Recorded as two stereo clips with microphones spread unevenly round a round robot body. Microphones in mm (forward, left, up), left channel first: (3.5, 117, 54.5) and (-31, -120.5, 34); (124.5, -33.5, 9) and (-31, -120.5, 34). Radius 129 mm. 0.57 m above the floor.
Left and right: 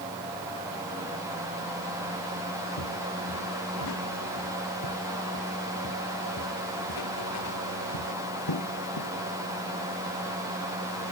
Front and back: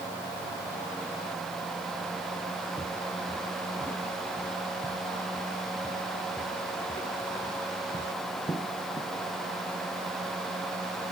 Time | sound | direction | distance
2.8 | footsteps | 115° left | ?